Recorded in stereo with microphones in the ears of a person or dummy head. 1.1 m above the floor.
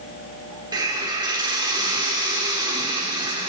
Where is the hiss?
15° right (ahead or behind), 1.4 m.